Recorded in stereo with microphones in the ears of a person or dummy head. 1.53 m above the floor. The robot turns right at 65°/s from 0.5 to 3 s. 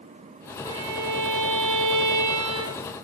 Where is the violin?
155° right, 1.5 m; by 2.9 s 5° right, 1.5 m.